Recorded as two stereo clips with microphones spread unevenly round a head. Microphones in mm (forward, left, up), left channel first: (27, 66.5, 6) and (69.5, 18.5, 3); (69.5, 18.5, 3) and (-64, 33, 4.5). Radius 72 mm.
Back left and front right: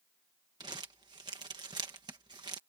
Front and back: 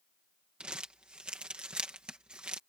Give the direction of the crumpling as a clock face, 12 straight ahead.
3 o'clock.